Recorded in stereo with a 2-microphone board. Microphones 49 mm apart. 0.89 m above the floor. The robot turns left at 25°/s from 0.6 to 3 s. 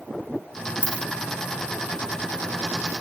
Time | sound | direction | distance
0.8 | a dropped coin | 25° right (ahead or behind) | 1.1 m